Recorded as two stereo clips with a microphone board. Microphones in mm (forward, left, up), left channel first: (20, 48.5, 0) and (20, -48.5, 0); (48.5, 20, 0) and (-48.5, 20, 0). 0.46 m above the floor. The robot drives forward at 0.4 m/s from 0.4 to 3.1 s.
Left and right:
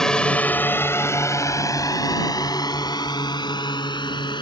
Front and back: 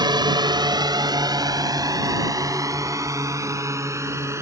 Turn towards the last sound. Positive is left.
turn(degrees=120)